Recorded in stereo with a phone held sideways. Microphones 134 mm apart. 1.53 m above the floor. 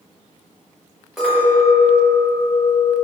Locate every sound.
1.2 s a clink: centre (ahead or behind), 1.2 m